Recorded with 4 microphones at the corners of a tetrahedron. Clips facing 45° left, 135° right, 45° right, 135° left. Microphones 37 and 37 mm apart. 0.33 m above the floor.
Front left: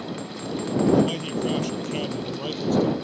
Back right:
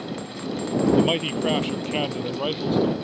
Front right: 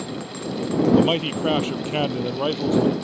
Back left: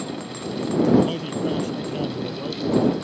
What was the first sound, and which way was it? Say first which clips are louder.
A man speaking: back right 1 dB, front right 2 dB; 85° right.